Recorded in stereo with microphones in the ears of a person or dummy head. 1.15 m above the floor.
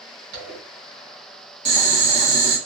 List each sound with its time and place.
0.3 s a zipper: 60° right (ahead or behind), 2.5 m
1.6 s boiling: 35° right (ahead or behind), 1.0 m